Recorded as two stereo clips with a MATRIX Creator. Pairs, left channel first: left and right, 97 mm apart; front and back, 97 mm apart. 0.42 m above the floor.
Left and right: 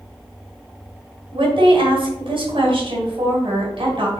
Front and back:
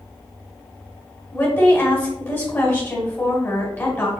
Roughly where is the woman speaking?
Ahead right.